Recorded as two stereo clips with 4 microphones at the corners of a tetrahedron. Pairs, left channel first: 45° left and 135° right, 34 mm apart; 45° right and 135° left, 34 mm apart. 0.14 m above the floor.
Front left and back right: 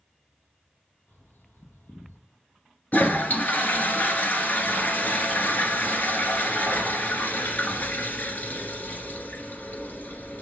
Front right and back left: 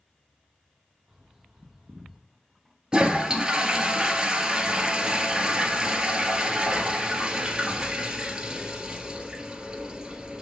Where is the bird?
55° left, 0.9 m.